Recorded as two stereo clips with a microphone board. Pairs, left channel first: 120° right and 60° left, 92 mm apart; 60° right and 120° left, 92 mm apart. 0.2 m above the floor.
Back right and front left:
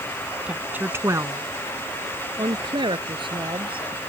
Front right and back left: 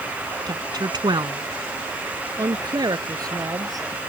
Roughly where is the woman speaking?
Behind left.